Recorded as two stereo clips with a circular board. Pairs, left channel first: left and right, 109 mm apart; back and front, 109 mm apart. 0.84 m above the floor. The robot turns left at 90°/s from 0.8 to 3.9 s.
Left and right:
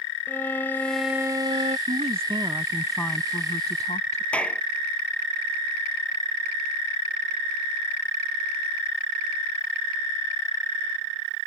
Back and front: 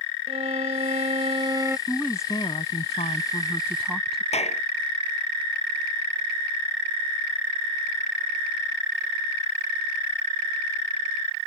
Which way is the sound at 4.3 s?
170° left.